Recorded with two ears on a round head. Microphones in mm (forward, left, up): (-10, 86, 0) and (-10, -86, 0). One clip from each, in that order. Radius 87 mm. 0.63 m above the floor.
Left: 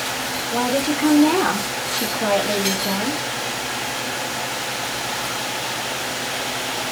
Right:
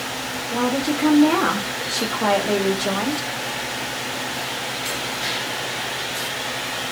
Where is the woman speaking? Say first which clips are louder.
Left 1 dB; 5° left (ahead or behind), 1.3 m; by 3.3 s 35° right (ahead or behind), 1.4 m.